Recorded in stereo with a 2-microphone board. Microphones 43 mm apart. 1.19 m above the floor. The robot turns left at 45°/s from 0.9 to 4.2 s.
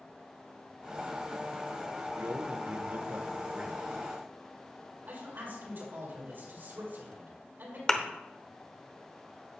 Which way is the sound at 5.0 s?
50° right (ahead or behind).